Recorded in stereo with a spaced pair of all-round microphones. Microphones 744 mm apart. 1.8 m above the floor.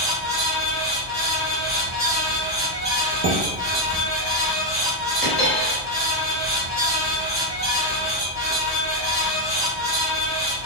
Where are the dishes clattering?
20° right (ahead or behind), 0.9 m.